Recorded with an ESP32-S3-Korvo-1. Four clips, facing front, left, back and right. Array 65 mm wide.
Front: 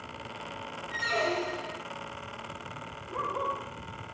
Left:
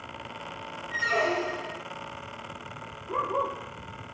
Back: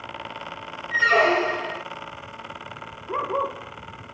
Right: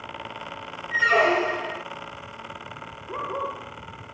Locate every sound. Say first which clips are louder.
0.9 s a squeak: right 7 dB, back 11 dB; 145° right, 0.6 m
3.1 s a dog barking: left 2 dB, back 6 dB; straight behind, 4 m